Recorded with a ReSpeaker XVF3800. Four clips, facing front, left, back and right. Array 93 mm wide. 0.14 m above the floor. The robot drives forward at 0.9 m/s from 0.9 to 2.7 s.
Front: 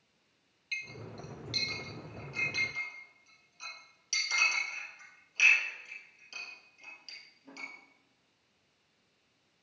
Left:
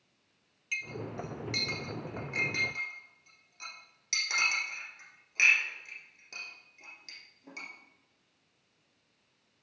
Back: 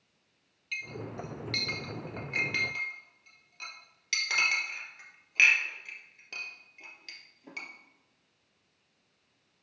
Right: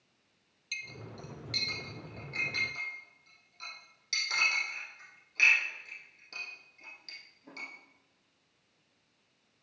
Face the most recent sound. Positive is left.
turn(degrees=170)